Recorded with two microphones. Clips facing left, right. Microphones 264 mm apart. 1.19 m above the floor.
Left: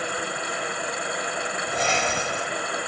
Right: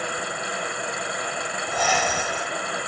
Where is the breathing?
25° left (ahead or behind), 3 m.